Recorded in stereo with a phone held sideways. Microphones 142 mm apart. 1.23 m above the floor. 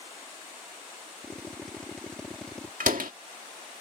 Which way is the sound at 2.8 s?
80° right.